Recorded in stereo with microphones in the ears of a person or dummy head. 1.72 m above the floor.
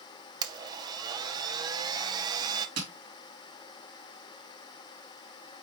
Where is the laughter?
I don't hear laughter.